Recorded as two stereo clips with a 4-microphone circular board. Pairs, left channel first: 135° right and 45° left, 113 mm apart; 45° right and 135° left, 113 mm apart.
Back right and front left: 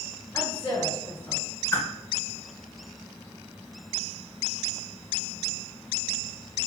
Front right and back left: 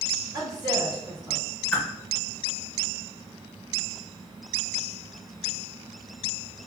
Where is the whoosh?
115° right, 0.7 m.